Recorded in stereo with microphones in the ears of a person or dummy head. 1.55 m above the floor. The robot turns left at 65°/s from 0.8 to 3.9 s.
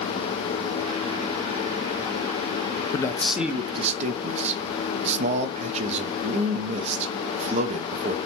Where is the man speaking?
25° left, 0.6 m; by 8.2 s 35° right, 0.6 m.